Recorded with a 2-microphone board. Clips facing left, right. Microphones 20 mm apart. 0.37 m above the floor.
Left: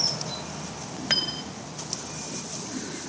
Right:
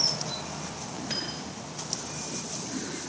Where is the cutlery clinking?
50° left (ahead or behind), 1.4 m.